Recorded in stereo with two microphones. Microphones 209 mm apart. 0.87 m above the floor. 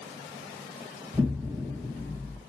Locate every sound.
1.1 s an explosion: 5° right (ahead or behind), 1.1 m